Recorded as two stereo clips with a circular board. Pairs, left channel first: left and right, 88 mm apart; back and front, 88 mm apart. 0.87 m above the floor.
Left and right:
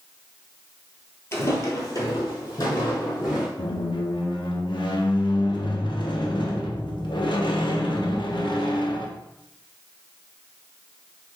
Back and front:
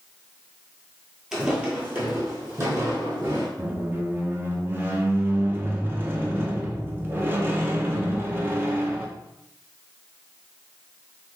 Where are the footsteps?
80° left, 0.9 m; by 3.5 s 50° left, 1.8 m.